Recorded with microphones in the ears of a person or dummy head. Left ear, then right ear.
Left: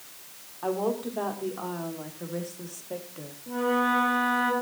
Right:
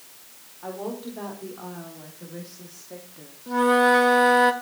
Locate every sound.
0.6 s a woman speaking: 80° left, 4.5 m; by 3.4 s 75° left (ahead or behind), 2.5 m
3.5 s a flute: 55° right (ahead or behind), 1.3 m